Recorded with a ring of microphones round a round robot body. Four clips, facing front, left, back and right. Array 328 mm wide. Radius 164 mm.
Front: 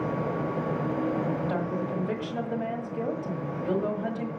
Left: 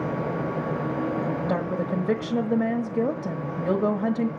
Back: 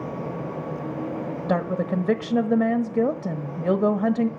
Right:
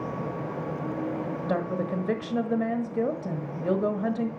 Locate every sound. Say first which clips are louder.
1.5 s a woman speaking: left 2 dB, back 5 dB; 175° left, 1.4 m